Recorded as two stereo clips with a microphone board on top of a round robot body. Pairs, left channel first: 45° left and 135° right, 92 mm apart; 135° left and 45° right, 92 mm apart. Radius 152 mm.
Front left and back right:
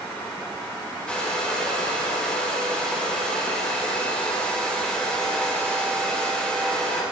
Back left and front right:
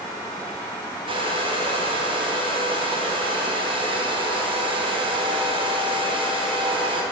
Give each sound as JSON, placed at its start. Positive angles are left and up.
{"t": 1.1, "sound": "a hair dryer", "azimuth_deg": -35, "distance_m": 2.0}